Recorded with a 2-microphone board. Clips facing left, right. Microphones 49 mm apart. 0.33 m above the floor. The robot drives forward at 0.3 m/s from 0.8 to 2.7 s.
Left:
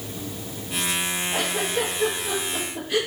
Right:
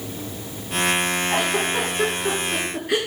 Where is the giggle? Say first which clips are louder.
Right 2 dB; 75° right (ahead or behind), 5.5 m; by 3.0 s 70° right (ahead or behind), 5.5 m.